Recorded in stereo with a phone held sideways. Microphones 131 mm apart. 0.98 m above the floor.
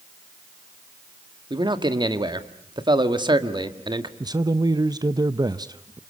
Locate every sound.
1.5 s a man speaking: 35° right (ahead or behind), 1.7 m
4.2 s a man speaking: 30° right (ahead or behind), 0.7 m